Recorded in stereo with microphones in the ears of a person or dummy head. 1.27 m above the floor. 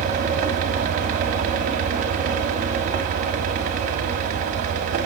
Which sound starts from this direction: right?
A fan, at 0.0 s.